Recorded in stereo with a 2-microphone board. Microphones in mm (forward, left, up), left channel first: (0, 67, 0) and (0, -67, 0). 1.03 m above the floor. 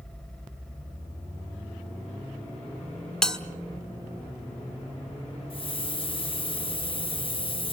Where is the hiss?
40° left (ahead or behind), 0.5 m.